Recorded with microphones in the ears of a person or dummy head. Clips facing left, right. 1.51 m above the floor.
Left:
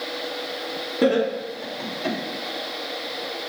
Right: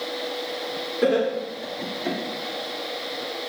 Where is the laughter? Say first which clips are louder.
Left 1 dB; 80° left, 3 m.